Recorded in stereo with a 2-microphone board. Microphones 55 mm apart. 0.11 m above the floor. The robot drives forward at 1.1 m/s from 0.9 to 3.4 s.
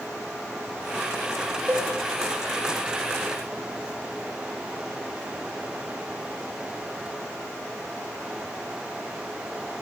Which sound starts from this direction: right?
A cowbell, at 1.7 s.